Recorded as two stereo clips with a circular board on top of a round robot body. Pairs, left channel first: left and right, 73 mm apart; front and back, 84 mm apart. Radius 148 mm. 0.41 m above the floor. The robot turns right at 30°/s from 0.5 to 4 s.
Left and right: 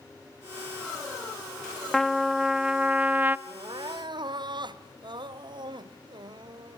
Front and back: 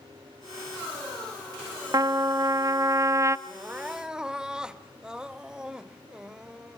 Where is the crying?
115° right, 0.9 m; by 6.8 s 100° right, 0.9 m.